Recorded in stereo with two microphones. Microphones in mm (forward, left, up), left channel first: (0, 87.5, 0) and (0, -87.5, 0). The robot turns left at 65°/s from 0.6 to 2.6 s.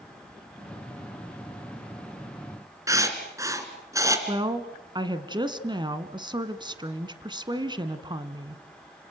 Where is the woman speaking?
25° right (ahead or behind), 1.4 m.